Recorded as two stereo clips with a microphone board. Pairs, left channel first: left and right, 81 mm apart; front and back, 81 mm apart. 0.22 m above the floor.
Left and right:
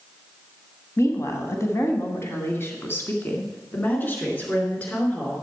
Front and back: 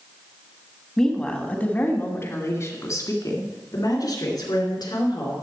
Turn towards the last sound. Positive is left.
turn(degrees=20)